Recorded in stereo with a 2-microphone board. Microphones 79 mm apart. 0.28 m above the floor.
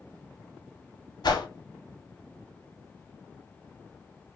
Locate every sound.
1.2 s a whoosh: 65° left (ahead or behind), 0.5 m